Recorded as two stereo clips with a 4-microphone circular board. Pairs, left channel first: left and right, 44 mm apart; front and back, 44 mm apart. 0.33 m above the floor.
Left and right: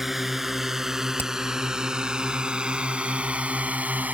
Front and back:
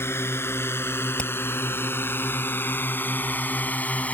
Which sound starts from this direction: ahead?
A drone, at 0.0 s.